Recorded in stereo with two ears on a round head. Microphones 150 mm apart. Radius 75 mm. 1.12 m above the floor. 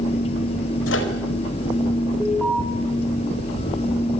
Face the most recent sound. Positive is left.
turn(degrees=5)  # may be behind; listen again after turning